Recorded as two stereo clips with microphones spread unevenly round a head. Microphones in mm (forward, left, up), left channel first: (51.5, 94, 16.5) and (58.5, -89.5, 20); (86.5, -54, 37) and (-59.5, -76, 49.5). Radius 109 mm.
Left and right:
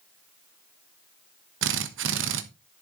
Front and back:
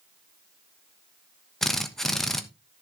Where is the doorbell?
I don't hear a doorbell.